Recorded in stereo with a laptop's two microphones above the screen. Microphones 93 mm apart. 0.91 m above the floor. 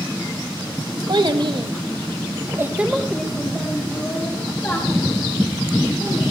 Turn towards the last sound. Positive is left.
turn(degrees=30)  # may be behind; listen again after turning